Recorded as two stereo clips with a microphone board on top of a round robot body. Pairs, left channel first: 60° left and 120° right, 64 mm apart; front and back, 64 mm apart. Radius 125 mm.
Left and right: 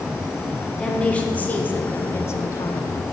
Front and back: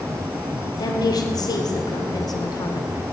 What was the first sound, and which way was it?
A woman speaking, 15° right.